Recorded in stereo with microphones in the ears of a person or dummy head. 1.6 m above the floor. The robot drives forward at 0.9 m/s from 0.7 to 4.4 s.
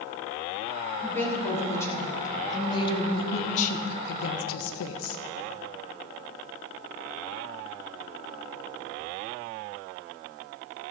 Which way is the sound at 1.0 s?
15° left (ahead or behind).